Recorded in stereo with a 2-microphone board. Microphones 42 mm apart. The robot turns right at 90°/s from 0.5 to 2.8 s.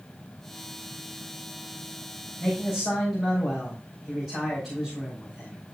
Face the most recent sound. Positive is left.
turn(degrees=170)